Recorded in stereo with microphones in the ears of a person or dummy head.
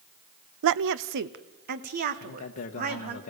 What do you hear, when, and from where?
0.6 s a woman speaking: 75° right (ahead or behind), 0.6 m; by 3.2 s 50° right (ahead or behind), 2.5 m
2.2 s a man speaking: 35° left (ahead or behind), 1.3 m